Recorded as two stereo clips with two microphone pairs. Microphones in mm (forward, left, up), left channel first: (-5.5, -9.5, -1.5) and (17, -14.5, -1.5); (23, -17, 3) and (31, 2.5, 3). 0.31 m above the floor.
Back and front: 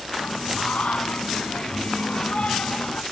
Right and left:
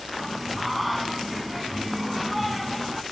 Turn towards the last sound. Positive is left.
turn(degrees=160)